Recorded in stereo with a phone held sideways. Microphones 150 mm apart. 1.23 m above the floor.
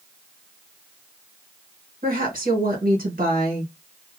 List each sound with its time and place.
2.0 s a woman speaking: 70° right (ahead or behind), 1.4 m